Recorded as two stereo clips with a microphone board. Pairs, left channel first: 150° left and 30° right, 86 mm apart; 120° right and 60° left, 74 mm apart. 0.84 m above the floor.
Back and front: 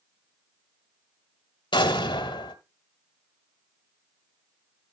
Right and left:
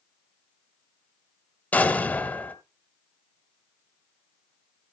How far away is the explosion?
About 1.2 m.